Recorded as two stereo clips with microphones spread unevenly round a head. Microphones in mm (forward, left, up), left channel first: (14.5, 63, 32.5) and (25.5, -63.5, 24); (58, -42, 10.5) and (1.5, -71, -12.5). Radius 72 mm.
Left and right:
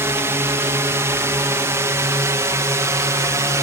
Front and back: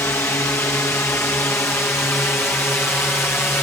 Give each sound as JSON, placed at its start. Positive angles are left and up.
{"t": 0.0, "sound": "a drone", "azimuth_deg": -20}